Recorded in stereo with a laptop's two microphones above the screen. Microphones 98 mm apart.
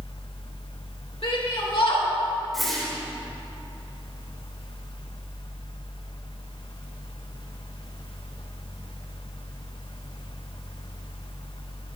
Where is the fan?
60° left (ahead or behind), 0.8 m.